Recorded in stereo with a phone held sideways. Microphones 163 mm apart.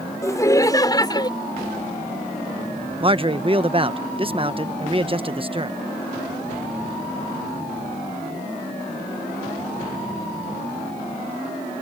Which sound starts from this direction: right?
A man speaking, at 3.0 s.